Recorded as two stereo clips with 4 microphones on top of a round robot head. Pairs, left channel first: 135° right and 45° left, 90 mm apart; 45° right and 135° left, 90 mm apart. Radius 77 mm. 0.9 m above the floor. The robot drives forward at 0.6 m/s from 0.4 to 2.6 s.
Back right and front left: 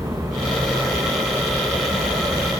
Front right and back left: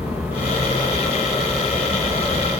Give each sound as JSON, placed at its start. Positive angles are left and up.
{"t": 0.0, "sound": "an aircraft", "azimuth_deg": 70}